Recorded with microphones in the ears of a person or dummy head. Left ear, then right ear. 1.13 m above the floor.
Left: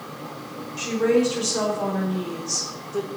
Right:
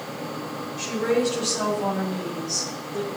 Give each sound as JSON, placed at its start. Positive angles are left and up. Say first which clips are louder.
{"t": 0.8, "sound": "a woman speaking", "louder": "left 3 dB", "side_deg": 45, "distance_m": 5.0}